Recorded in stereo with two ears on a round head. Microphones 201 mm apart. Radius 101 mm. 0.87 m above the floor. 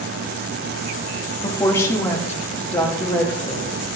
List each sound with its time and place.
1.4 s a woman speaking: 15° left (ahead or behind), 1.7 m; by 3.7 s 5° left (ahead or behind), 5 m